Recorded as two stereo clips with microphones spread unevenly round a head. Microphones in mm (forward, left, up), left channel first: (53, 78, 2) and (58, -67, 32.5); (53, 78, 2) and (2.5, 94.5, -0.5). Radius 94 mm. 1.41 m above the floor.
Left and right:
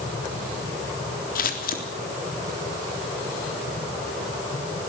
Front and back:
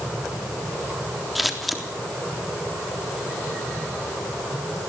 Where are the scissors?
70° left, 3.5 m.